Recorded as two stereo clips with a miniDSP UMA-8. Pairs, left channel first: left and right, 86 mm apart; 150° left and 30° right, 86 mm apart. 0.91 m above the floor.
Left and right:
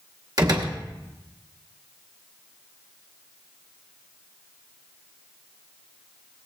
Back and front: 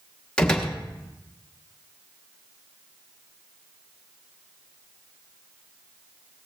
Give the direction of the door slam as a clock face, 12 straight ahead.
4 o'clock.